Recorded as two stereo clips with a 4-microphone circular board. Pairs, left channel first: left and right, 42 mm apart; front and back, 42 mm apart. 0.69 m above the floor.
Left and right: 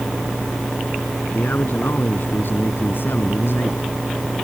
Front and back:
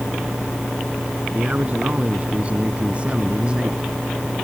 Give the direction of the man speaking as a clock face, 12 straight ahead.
8 o'clock.